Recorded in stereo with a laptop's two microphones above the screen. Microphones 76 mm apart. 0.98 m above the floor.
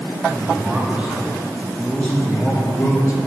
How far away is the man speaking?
About 2 m.